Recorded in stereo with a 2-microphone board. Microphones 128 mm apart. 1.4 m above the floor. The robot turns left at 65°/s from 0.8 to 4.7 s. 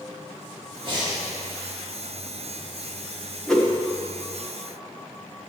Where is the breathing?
40° right (ahead or behind), 1.4 m; by 1.2 s 20° right (ahead or behind), 1.4 m.